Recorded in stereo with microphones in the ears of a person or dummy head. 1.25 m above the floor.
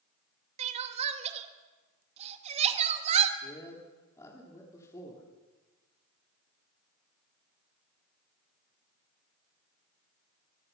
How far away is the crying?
About 1.8 m.